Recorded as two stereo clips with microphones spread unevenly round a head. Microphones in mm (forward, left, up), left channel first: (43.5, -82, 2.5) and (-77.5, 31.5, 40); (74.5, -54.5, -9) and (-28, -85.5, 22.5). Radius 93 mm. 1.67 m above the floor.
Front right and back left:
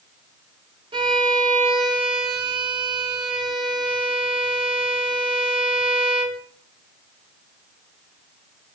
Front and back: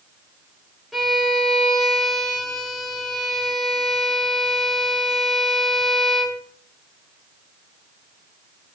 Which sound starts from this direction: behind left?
A violin, at 0.9 s.